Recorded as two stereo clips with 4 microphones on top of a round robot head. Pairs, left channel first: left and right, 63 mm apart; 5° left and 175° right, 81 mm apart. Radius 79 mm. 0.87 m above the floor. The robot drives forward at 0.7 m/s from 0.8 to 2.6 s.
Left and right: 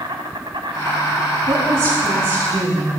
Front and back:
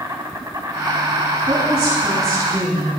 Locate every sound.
0.0 s an insect: 115° right, 0.9 m; by 3.0 s 160° right, 1.7 m
1.5 s a woman speaking: 130° right, 6.5 m; by 2.9 s 135° right, 7 m